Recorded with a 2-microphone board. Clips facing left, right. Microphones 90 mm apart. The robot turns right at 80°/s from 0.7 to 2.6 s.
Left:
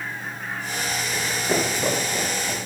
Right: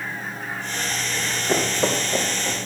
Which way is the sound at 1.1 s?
30° left (ahead or behind).